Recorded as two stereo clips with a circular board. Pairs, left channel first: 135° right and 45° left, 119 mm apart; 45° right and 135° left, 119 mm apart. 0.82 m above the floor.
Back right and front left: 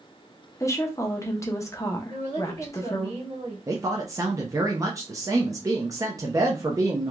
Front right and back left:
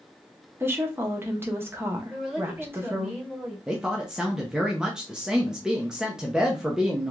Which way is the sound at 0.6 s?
170° right.